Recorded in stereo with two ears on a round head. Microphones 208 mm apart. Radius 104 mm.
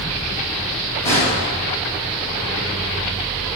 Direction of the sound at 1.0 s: 15° left (ahead or behind).